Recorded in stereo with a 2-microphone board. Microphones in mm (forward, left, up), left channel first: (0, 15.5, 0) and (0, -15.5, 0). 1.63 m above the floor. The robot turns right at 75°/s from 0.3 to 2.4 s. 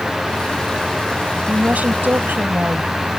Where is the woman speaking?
145° right; by 3.0 s 75° right.